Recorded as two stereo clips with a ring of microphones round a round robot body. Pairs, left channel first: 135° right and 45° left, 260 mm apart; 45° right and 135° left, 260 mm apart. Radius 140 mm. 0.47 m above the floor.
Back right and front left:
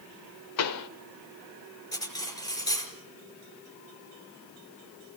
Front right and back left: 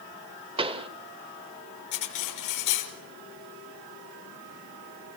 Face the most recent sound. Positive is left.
turn(degrees=-60)